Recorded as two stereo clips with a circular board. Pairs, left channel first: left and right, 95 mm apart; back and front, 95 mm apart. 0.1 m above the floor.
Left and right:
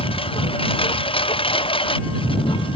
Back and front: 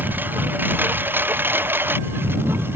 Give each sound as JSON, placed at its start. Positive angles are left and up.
{"t": 0.0, "sound": "a lawn mower", "azimuth_deg": 70}